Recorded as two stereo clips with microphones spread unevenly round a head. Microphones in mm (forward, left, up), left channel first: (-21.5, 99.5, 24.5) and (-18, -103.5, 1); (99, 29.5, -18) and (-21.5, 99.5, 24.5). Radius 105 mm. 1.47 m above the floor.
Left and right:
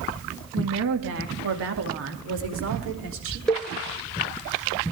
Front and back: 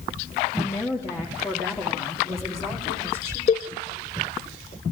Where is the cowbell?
10° left, 0.6 m.